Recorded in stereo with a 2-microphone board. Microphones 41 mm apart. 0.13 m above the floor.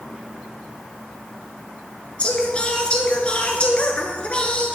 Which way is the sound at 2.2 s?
30° left (ahead or behind).